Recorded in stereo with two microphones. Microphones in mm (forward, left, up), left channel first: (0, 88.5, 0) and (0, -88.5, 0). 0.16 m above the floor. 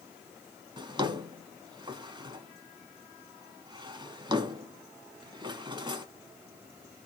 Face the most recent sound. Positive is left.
turn(degrees=-25)  # may be behind; listen again after turning